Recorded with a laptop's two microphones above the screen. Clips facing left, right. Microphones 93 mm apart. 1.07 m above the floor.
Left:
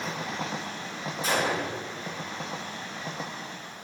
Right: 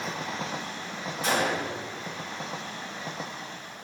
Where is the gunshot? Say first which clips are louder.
Right 1 dB; 75° right (ahead or behind), 1.8 m.